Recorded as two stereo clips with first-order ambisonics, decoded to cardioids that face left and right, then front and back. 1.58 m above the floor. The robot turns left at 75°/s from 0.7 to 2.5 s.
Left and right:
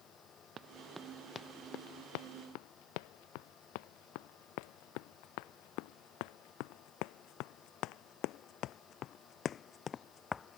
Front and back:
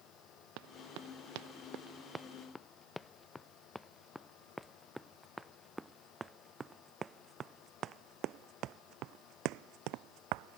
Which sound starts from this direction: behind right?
Running footsteps, at 0.6 s.